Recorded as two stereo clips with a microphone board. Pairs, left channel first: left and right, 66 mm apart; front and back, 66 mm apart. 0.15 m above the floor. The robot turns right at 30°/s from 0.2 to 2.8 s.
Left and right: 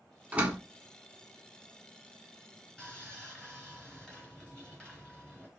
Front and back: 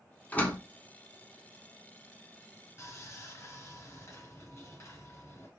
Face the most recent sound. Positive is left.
turn(degrees=15)